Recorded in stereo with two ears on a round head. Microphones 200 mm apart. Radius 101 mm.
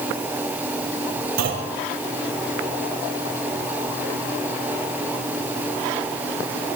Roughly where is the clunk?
Right.